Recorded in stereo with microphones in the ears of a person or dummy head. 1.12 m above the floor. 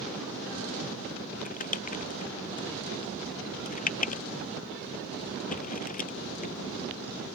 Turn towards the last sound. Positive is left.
turn(degrees=45)  # may be behind; listen again after turning